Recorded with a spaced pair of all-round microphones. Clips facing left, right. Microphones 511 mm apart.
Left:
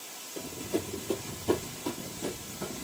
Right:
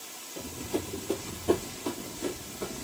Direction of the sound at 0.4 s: 15° right (ahead or behind).